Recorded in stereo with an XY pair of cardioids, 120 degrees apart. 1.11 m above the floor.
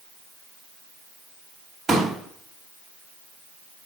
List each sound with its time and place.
1.9 s a pop: 35° right, 2 m